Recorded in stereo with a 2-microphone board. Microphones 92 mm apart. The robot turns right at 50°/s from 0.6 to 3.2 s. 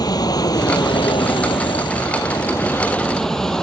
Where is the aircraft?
45° left (ahead or behind); by 3.6 s 5° left (ahead or behind).